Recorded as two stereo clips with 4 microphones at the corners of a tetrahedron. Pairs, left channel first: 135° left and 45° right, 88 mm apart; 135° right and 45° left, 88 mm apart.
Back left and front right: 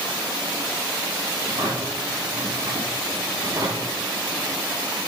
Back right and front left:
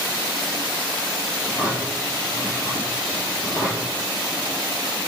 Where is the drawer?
80° right, 4.5 m.